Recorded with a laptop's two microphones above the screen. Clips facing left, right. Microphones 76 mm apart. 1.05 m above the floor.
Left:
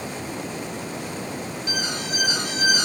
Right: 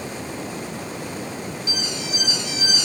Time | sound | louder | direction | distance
1.7 | an alarm | left 1 dB | 50° left (ahead or behind) | ?